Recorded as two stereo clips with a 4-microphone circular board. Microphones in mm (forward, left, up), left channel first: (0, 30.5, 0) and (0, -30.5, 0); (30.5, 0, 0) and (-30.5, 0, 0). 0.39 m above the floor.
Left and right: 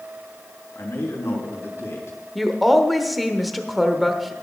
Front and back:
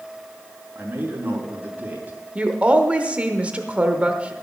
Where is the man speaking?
125° left, 3 m.